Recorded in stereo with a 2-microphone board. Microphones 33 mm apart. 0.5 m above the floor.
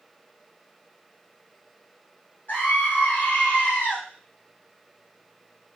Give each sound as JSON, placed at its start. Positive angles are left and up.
{"t": 2.5, "sound": "a scream", "side_deg": 60, "distance_m": 1.7}